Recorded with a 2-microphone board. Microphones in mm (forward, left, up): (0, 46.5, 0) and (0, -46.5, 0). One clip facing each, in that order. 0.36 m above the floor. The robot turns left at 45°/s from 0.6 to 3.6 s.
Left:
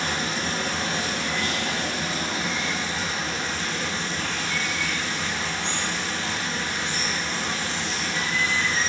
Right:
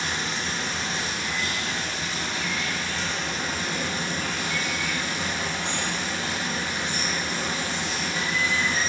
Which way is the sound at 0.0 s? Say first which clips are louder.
Left 2 dB; 120° left.